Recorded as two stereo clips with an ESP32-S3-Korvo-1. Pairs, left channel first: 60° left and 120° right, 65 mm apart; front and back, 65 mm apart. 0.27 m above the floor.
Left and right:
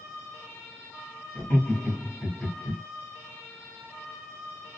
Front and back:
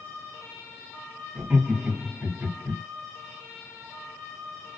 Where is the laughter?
120° left, 1.4 m.